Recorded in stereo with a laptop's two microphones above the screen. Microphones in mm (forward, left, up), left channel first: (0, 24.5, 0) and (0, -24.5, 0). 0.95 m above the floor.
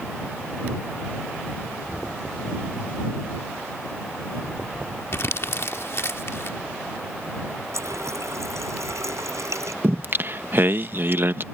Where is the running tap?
90° right.